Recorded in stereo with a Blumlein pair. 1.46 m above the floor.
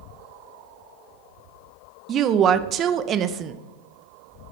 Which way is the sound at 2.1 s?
30° right.